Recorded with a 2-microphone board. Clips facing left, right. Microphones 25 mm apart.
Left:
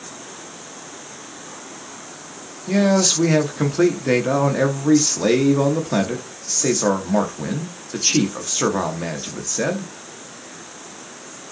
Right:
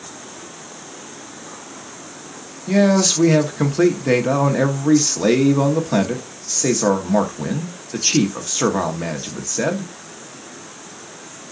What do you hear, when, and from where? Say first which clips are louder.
2.7 s a man speaking: right 2 dB; 5° right (ahead or behind), 0.8 m